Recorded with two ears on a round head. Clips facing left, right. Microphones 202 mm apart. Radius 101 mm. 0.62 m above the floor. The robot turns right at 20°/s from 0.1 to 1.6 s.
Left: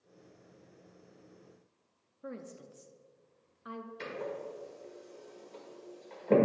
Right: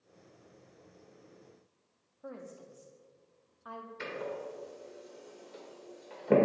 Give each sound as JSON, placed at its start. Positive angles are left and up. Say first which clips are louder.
{"t": 2.2, "sound": "a woman speaking", "louder": "left 1 dB", "side_deg": 25, "distance_m": 0.6}
{"t": 4.0, "sound": "a door slam", "louder": "right 1 dB", "side_deg": -10, "distance_m": 1.6}